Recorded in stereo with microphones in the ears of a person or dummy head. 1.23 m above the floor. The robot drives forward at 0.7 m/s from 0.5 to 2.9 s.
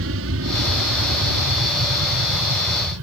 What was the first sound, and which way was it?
An aircraft, 60° right (ahead or behind).